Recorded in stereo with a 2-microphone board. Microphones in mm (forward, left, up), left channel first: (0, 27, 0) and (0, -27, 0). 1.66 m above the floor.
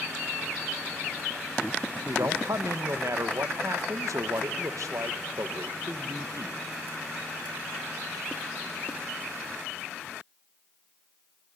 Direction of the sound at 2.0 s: 75° right (ahead or behind).